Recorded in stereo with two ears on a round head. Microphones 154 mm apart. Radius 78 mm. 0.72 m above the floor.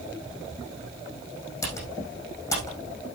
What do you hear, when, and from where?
1.6 s typing on a keyboard: 20° left (ahead or behind), 5.5 m